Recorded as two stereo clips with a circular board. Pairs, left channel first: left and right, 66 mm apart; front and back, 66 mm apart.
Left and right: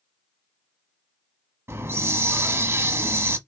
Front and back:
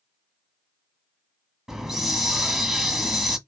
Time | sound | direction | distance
1.7 | a hiss | 105° right | 1.2 m